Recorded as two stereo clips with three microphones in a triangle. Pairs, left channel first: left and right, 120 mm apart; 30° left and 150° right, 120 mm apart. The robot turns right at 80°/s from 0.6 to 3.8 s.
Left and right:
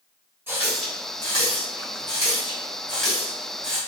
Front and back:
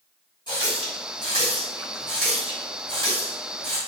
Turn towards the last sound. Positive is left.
turn(degrees=-125)